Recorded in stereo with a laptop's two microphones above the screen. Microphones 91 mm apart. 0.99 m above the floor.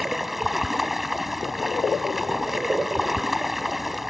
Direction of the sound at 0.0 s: Centre (ahead or behind).